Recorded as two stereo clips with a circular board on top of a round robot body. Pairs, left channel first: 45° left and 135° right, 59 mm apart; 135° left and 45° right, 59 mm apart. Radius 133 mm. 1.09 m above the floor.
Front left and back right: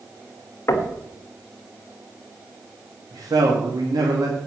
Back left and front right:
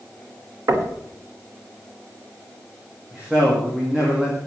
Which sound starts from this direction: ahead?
Knocking, at 0.7 s.